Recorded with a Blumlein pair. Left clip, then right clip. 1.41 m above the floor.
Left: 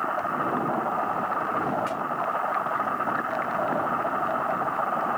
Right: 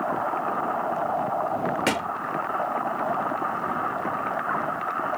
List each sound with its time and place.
1.9 s a thud: 35° right